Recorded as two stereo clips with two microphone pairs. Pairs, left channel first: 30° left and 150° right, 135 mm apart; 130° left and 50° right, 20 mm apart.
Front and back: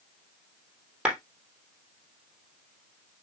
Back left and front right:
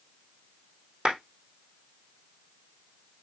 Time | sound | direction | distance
1.1 | a clap | 65° right | 3.5 m